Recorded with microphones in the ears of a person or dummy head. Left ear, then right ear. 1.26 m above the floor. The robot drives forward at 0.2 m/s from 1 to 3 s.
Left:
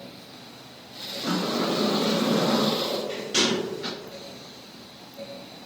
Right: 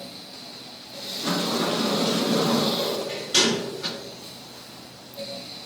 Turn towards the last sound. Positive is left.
turn(degrees=-15)  # may be behind; listen again after turning